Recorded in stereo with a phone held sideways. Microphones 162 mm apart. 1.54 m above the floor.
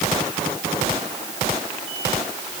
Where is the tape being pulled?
No tape being pulled in this recording.